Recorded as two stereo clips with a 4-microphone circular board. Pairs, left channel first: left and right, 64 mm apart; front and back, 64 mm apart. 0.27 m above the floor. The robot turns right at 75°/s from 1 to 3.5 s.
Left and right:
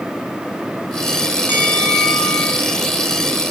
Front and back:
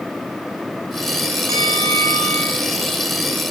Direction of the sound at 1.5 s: 140° left.